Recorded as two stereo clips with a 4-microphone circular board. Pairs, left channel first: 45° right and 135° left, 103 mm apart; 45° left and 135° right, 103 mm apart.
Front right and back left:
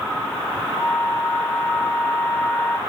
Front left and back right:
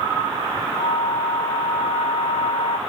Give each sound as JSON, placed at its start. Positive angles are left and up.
{"t": 0.8, "sound": "a flute", "azimuth_deg": 30}